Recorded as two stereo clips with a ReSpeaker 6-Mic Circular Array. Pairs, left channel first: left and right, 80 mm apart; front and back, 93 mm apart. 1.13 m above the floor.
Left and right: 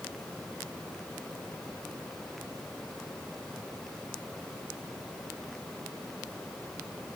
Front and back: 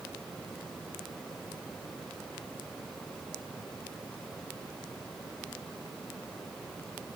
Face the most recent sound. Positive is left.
No sound to turn to.